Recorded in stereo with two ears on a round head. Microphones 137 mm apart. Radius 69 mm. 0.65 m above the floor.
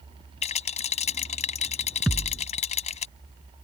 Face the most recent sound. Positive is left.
turn(degrees=0)  # may be behind; listen again after turning